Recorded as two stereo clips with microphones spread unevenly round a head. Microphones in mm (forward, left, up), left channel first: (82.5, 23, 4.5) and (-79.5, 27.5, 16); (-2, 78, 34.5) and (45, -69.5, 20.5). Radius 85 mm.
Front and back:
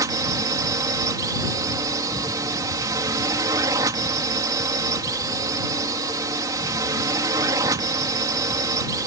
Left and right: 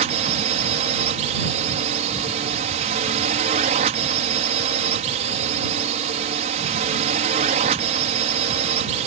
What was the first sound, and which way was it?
A drone, 110° right.